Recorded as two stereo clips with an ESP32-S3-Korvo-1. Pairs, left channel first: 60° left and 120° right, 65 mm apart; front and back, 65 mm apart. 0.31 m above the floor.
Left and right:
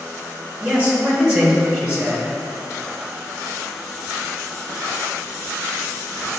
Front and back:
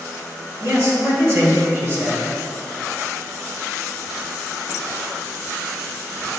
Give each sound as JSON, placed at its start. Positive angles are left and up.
{"t": 0.6, "sound": "a man speaking", "azimuth_deg": 175, "distance_m": 1.4}